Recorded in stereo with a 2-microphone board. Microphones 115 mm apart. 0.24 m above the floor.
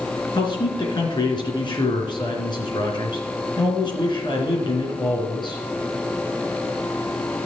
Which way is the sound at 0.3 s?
45° left (ahead or behind).